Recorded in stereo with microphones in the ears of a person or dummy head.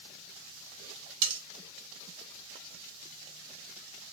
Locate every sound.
1.2 s cutlery clinking: 35° right (ahead or behind), 1.4 m